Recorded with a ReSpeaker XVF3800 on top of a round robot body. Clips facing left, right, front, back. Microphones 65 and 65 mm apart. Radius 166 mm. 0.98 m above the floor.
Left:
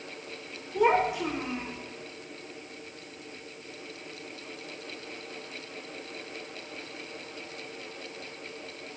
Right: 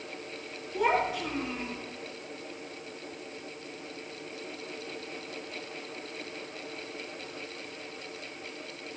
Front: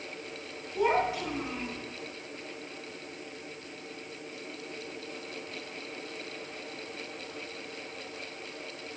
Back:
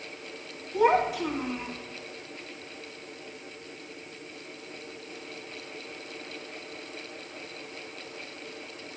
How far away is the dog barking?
No dog barking in this recording.